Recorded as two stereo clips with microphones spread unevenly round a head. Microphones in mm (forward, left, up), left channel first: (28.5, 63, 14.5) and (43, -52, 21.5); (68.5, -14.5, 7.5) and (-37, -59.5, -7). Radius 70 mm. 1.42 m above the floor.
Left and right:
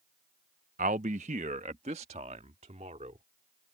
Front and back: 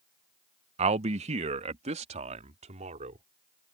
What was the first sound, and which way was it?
A man speaking, 125° right.